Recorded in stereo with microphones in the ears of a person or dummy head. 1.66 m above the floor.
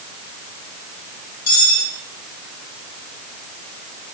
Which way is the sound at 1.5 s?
60° left (ahead or behind).